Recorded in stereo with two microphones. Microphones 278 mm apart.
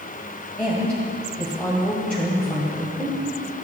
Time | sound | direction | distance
0.6 | a woman speaking | 5° left (ahead or behind) | 1.5 m